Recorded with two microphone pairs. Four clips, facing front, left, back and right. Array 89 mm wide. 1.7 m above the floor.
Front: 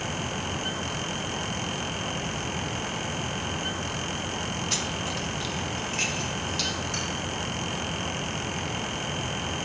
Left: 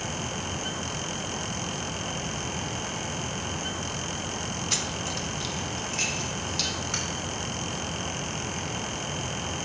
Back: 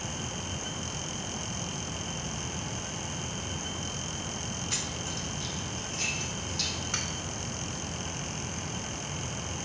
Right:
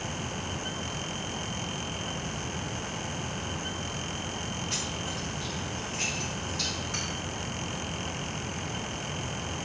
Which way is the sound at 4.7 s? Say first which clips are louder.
Left 3 dB, front 6 dB; 70° left.